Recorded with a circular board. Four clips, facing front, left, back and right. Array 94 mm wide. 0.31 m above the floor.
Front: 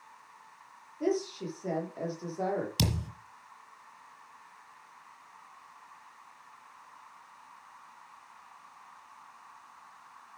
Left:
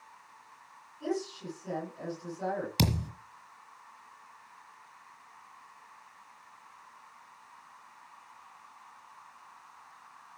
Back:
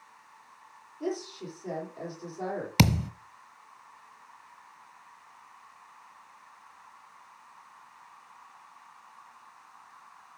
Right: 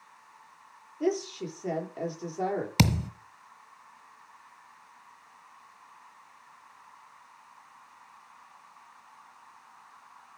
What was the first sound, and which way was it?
A woman speaking, 70° right.